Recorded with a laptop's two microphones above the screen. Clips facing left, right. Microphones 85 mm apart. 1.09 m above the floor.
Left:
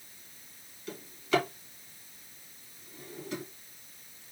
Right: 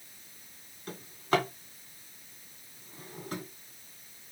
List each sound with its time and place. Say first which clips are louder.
0.9 s a drawer: even; 45° right (ahead or behind), 2 m